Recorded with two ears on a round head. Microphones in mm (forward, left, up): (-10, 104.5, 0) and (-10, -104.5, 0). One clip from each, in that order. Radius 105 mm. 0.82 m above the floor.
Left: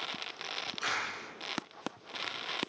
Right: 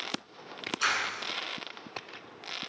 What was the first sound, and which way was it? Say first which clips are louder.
A clap: right 7 dB; 50° right (ahead or behind).